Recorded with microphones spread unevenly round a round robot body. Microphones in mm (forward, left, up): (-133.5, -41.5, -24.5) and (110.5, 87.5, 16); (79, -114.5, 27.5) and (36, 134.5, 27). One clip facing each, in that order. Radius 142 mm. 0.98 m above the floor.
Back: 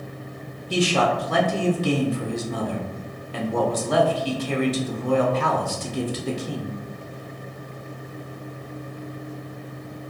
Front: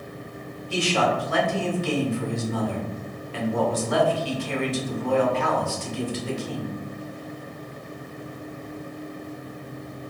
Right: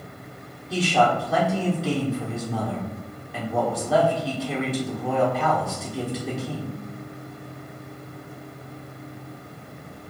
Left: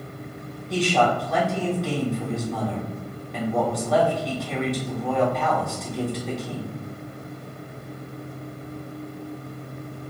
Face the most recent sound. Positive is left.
turn(degrees=-165)